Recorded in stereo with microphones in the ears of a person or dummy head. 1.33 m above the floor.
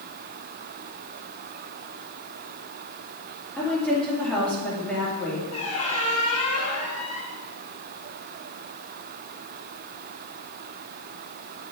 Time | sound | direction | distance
3.6 | a woman speaking | 10° left (ahead or behind) | 2 m
5.5 | a squeak | 40° left (ahead or behind) | 3 m